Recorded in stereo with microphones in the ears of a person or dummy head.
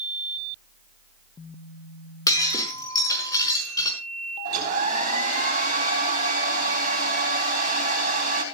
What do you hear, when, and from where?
2.3 s breaking glass: 20° left (ahead or behind), 5.5 m
4.5 s a hair dryer: 50° right (ahead or behind), 4 m